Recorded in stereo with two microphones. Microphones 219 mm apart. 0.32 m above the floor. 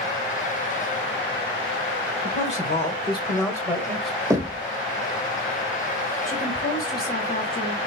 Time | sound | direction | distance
2.2 | a man speaking | 35° left (ahead or behind) | 1.5 m
4.3 | knocking | 15° right (ahead or behind) | 0.7 m
6.3 | a woman speaking | 45° left (ahead or behind) | 2.0 m